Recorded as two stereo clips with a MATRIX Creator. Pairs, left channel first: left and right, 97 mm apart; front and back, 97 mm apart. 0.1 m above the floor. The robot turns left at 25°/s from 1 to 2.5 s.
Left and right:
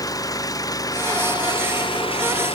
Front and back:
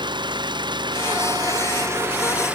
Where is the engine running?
140° left; by 2.5 s 105° left.